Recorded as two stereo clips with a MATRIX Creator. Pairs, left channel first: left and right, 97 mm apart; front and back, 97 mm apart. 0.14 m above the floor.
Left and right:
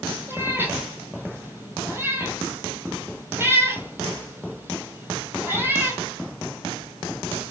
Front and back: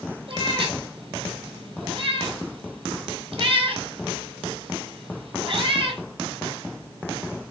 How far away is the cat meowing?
About 1.3 m.